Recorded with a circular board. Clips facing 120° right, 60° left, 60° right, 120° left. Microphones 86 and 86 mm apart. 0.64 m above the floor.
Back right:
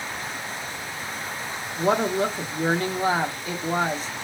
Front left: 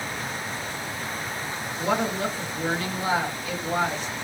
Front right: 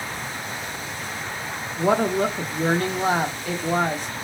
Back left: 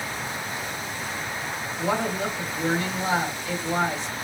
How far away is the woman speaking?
About 1.0 m.